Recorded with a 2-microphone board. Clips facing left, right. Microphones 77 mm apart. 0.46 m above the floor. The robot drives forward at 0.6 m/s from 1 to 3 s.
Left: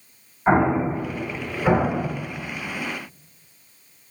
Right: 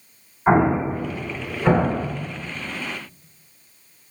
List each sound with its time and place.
0.5 s an explosion: 10° left (ahead or behind), 1.2 m; by 2.1 s 5° left (ahead or behind), 1.6 m